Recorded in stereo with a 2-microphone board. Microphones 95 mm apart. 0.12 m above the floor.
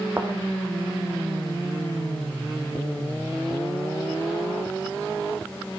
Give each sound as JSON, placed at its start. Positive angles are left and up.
{"t": 0.2, "sound": "a thud", "side_deg": -15, "distance_m": 2.5}